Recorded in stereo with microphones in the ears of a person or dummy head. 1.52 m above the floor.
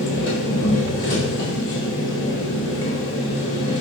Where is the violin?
No violin in this recording.